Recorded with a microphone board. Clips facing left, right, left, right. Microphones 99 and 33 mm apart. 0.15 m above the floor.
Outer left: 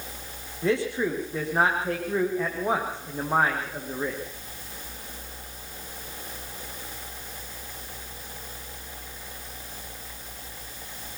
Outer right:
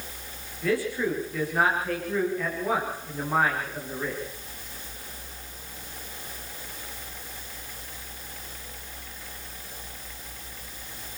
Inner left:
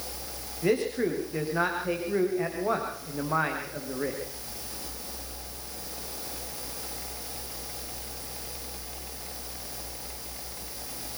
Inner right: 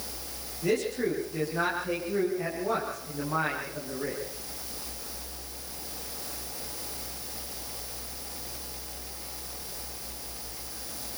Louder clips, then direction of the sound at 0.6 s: Outer left 1 dB, inner left 2 dB; 25° left (ahead or behind).